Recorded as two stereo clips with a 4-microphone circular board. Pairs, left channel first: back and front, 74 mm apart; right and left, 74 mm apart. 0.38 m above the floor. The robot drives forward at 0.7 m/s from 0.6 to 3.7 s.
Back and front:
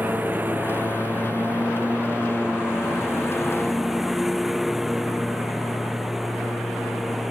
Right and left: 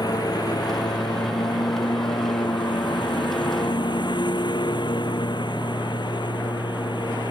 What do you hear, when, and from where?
0.0 s a lawn mower: 65° right; by 7.3 s 85° right